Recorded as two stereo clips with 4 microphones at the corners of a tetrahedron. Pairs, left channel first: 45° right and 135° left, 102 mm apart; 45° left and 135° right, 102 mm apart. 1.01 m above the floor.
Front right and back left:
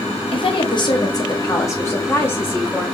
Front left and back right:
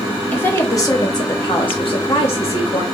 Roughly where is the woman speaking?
Ahead right.